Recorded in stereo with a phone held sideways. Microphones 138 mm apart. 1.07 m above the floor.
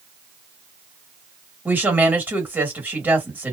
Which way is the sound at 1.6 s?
10° right (ahead or behind).